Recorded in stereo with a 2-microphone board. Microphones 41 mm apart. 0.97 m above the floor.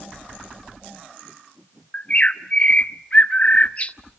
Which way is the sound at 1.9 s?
30° left (ahead or behind).